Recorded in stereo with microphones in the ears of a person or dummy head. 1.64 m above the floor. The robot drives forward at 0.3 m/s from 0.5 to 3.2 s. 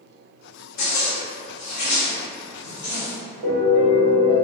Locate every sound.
0.8 s a zipper: 75° left (ahead or behind), 0.9 m; by 3.1 s 45° left (ahead or behind), 1.2 m
3.4 s a piano: 40° right (ahead or behind), 1.1 m